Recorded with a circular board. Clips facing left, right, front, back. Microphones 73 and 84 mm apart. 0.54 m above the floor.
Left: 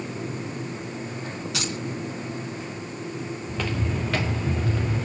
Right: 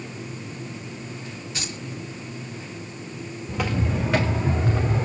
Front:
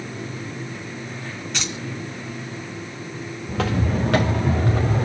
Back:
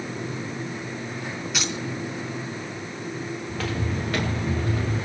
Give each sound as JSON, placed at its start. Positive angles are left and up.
{"t": 1.5, "sound": "keys jangling", "azimuth_deg": 95, "distance_m": 4.0}
{"t": 3.5, "sound": "footsteps", "azimuth_deg": -10, "distance_m": 3.5}